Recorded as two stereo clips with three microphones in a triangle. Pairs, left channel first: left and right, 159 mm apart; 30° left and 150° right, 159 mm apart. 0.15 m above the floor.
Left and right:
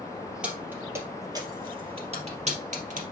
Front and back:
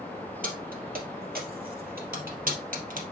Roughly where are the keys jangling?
Behind.